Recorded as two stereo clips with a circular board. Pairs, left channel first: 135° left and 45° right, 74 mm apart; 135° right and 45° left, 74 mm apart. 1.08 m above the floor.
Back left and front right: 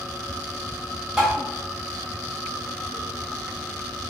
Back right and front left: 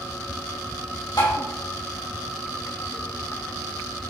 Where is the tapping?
130° right, 3.5 m.